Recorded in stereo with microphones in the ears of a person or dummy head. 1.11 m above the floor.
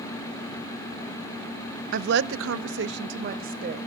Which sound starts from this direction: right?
A woman speaking, at 1.9 s.